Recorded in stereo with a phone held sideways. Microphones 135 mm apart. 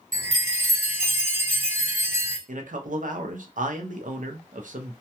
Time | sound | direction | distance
0.1 | a chime | 65° right (ahead or behind) | 1.2 m
2.5 | a man speaking | 75° right (ahead or behind) | 0.6 m